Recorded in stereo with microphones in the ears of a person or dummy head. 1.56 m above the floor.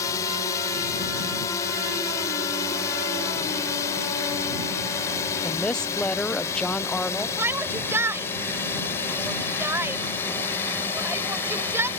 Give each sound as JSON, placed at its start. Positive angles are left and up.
{"t": 0.0, "sound": "a drone", "side_deg": 20}
{"t": 5.4, "sound": "a woman speaking", "side_deg": 5}
{"t": 7.4, "sound": "a shout", "side_deg": -15}